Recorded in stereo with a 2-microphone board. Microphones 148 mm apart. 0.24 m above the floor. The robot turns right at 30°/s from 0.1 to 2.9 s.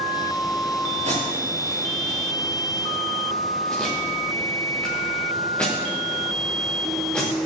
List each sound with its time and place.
1.0 s tape being pulled: 45° right (ahead or behind), 5.5 m; by 7.3 s 10° left (ahead or behind), 5.5 m